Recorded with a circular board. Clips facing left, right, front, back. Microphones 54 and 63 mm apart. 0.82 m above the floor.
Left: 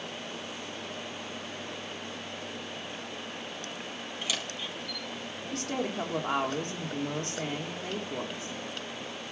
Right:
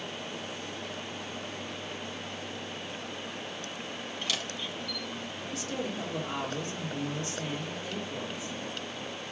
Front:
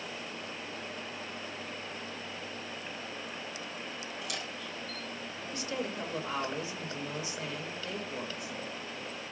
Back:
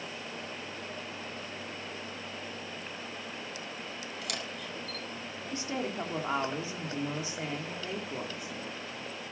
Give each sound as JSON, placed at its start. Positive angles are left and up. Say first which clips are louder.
{"t": 4.2, "sound": "a camera shutter", "louder": "even, back 1 dB", "azimuth_deg": 170, "distance_m": 3.5}
{"t": 5.5, "sound": "a woman speaking", "louder": "left 3 dB, back 2 dB", "azimuth_deg": 120, "distance_m": 2.0}